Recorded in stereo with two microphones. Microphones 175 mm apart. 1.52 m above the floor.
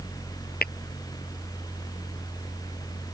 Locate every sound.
0.6 s tapping: 70° left (ahead or behind)